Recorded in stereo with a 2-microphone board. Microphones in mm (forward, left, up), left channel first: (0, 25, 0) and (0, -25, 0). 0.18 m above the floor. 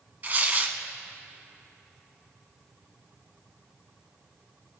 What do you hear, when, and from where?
0.2 s tearing paper: 35° right (ahead or behind), 0.9 m